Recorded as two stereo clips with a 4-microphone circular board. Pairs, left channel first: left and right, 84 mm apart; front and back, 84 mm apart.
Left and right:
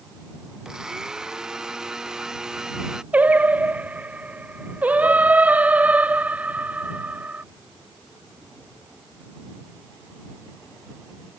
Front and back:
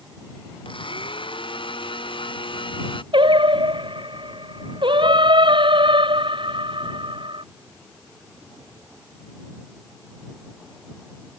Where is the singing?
165° right.